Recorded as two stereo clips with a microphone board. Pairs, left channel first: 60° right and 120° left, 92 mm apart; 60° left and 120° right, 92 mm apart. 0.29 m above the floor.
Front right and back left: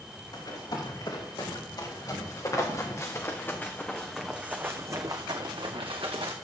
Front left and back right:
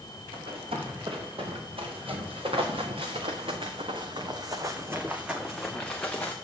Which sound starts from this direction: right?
Running footsteps, at 0.3 s.